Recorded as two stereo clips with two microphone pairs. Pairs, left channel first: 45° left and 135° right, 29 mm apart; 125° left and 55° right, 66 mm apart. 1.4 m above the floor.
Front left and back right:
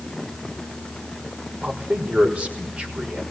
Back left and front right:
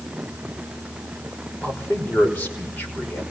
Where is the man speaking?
170° right, 5.5 m.